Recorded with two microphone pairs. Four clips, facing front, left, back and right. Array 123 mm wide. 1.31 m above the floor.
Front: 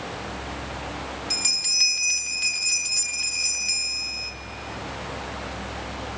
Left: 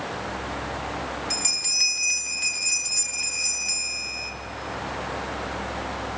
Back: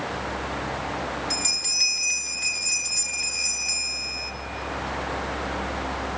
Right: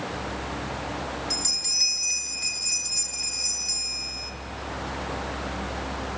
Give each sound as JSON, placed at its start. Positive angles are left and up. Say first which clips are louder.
{"t": 1.3, "sound": "a bell", "louder": "left 1 dB, back 3 dB", "azimuth_deg": 50, "distance_m": 2.0}